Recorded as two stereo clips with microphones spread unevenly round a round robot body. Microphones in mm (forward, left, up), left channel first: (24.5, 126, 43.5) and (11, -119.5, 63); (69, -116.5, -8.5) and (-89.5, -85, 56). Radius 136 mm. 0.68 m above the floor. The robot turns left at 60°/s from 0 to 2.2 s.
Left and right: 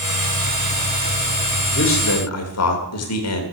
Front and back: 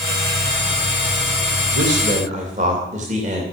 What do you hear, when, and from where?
1.7 s a man speaking: 130° left, 2.5 m; by 3.4 s 100° left, 2.5 m